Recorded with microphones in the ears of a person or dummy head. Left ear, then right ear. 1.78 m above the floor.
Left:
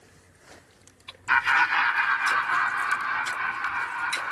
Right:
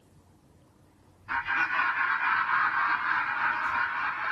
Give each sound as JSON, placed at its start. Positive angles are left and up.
{"t": 1.3, "sound": "laughter", "side_deg": 55, "distance_m": 0.6}